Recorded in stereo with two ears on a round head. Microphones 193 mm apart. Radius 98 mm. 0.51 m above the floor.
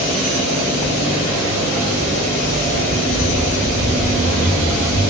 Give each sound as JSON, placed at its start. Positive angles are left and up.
{"t": 0.8, "sound": "footsteps", "side_deg": -25, "distance_m": 1.0}